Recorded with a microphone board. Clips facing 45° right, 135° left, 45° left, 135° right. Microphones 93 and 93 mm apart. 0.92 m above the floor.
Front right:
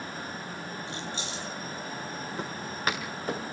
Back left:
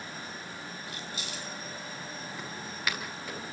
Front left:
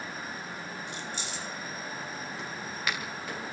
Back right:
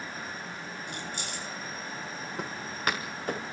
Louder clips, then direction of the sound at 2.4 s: Front right 5 dB, back right 6 dB; 95° right.